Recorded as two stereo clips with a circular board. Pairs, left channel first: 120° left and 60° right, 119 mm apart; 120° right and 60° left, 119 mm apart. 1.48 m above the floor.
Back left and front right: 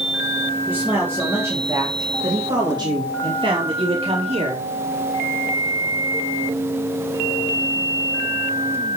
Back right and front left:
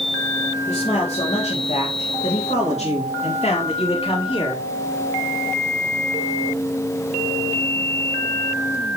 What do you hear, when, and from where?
0.7 s a man speaking: 135° right, 3.5 m; by 4.6 s 80° right, 2.5 m